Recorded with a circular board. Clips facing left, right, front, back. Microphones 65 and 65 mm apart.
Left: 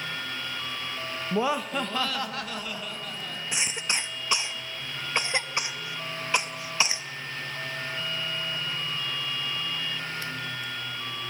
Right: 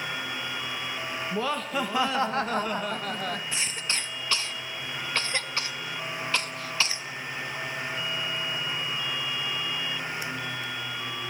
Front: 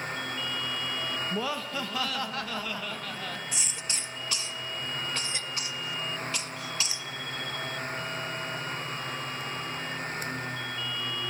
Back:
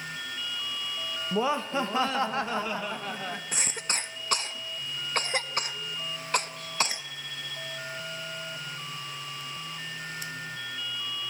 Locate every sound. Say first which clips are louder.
1.3 s laughter: left 3 dB, back 9 dB; 135° left, 0.7 m; by 3.4 s 110° right, 1.4 m
3.5 s a cough: left 1 dB, back 3 dB; 160° left, 1.1 m